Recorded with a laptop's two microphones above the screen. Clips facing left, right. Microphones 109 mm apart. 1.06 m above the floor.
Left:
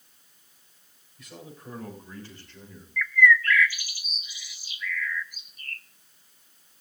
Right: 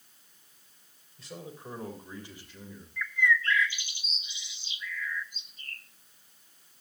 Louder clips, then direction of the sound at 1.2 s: Right 1 dB; 30° right (ahead or behind).